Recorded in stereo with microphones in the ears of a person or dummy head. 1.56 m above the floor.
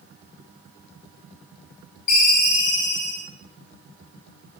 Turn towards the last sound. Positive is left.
turn(degrees=50)  # may be behind; listen again after turning